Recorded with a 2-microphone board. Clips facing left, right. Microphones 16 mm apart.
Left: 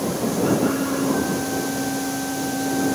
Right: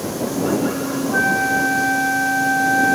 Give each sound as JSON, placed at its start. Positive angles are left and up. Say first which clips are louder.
{"t": 1.1, "sound": "a flute", "louder": "right 6 dB", "side_deg": -75}